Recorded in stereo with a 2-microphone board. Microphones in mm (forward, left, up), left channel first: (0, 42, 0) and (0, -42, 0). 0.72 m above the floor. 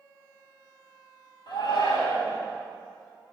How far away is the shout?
About 4 m.